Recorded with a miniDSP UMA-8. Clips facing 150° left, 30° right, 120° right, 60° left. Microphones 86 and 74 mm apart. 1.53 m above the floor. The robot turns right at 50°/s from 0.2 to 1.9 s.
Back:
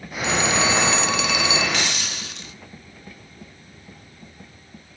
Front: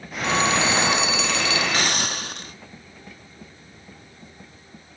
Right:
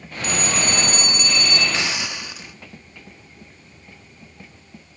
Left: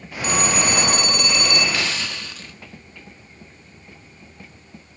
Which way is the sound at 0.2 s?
15° left.